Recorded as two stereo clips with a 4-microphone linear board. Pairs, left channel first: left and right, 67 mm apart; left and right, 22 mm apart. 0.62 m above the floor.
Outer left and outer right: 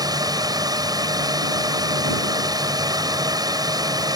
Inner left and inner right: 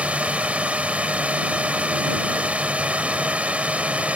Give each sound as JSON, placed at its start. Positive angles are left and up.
{"t": 0.0, "sound": "a drone", "side_deg": -65}